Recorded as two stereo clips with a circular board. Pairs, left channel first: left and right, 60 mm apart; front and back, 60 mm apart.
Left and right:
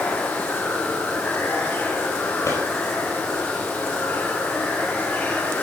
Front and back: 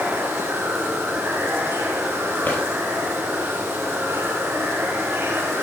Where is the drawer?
60° left, 4 m.